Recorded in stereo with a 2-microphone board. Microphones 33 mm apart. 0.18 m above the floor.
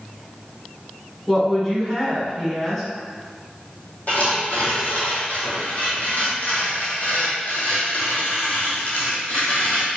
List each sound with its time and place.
1.3 s a woman speaking: 15° left (ahead or behind), 1.2 m
4.1 s tearing paper: 50° left (ahead or behind), 1.3 m